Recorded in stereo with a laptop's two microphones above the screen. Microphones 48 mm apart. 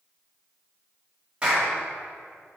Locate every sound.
1.4 s a clap: 20° right (ahead or behind), 2.5 m